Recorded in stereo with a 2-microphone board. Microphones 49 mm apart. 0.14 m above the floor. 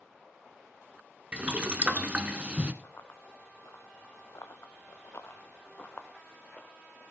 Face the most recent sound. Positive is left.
turn(degrees=20)  # may be behind; listen again after turning